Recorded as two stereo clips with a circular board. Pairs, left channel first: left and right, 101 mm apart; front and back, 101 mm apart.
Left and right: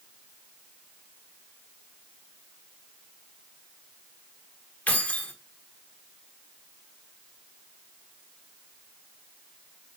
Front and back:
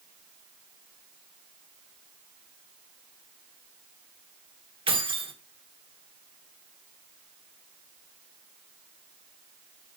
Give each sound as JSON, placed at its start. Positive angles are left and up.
{"t": 4.9, "sound": "keys jangling", "azimuth_deg": 165, "distance_m": 1.4}